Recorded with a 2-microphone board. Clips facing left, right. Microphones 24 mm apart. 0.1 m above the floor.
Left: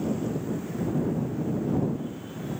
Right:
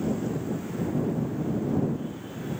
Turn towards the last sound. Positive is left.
No sound to turn to.